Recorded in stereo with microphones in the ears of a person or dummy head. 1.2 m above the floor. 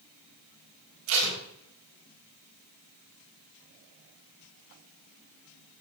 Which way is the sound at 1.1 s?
85° right.